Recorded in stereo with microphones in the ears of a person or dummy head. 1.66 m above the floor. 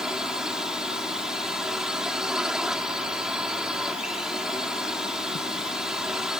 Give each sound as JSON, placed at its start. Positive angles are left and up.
{"t": 0.0, "sound": "a drone", "side_deg": -10}